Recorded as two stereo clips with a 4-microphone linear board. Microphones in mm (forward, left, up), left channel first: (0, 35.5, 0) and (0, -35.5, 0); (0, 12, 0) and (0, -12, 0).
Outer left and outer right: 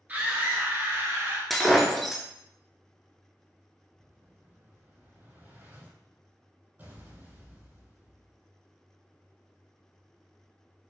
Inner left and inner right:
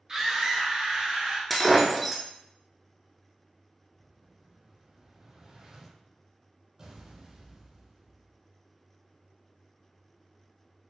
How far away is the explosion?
About 0.8 m.